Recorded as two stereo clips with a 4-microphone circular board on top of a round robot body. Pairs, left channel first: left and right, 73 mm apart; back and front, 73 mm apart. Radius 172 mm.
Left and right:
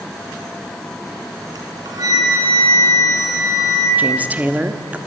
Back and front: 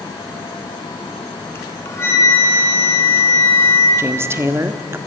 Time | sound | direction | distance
1.6 | a flute | 125° right | 4.5 m
4.0 | a woman speaking | 30° right | 1.7 m